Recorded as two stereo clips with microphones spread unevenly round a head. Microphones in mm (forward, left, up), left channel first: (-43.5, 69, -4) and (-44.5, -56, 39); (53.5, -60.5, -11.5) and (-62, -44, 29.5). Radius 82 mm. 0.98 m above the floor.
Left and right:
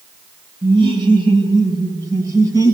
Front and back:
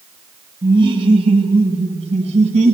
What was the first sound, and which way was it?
Laughter, 140° right.